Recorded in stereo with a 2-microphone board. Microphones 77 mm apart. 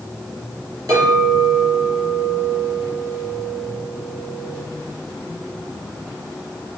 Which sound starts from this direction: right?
A clink, at 0.9 s.